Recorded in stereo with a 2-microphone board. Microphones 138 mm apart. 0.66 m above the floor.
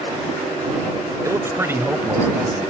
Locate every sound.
1.2 s a man speaking: 25° right (ahead or behind); by 2.7 s 10° right (ahead or behind)